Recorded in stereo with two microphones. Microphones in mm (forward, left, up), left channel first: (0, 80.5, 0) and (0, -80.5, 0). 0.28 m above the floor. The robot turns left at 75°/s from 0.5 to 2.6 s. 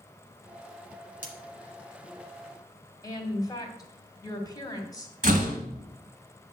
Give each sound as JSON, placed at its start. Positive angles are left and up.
{"t": 1.2, "sound": "cutlery clinking", "side_deg": 55, "distance_m": 1.8}
{"t": 3.0, "sound": "a woman speaking", "side_deg": 25, "distance_m": 2.0}
{"t": 5.2, "sound": "a door slam", "side_deg": -55, "distance_m": 2.0}